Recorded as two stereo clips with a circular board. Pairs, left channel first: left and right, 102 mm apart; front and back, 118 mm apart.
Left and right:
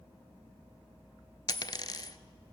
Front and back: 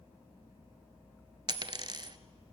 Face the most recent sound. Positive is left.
turn(degrees=135)